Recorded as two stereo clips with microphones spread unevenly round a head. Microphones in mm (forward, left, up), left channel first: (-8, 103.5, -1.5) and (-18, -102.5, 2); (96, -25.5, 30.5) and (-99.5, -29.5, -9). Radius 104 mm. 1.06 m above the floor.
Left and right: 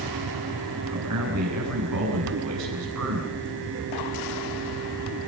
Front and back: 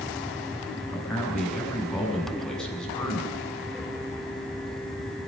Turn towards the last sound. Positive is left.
turn(degrees=-85)